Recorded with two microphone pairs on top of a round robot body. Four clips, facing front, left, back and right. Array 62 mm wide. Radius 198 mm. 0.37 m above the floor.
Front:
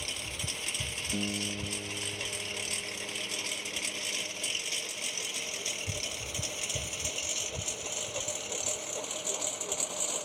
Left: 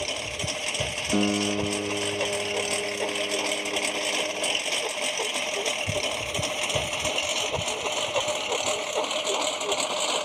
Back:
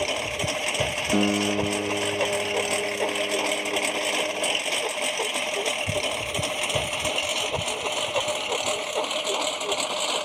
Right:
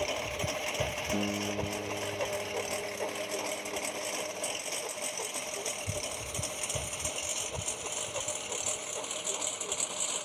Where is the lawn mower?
175° right; by 10.3 s 130° left.